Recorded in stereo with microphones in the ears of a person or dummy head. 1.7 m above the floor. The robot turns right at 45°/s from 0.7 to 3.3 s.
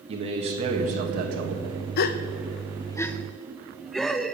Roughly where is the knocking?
No knocking in this recording.